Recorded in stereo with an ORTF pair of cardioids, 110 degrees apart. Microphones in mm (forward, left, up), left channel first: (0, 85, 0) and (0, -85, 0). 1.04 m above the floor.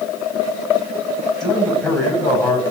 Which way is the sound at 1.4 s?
5° left.